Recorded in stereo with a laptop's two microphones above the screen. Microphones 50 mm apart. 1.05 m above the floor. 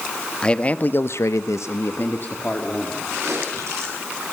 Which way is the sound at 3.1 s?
75° right (ahead or behind).